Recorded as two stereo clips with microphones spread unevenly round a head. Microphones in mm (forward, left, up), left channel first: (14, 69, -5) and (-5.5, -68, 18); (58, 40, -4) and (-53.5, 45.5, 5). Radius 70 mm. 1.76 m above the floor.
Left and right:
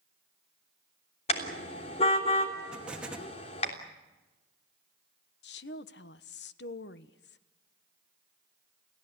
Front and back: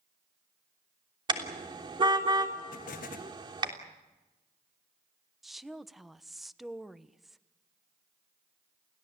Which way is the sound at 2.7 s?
15° right.